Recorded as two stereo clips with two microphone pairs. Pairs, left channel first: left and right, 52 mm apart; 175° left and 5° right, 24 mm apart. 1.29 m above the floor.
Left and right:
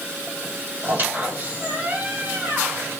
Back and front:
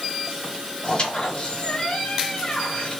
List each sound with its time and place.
0.8 s a squeak: 145° right, 2.5 m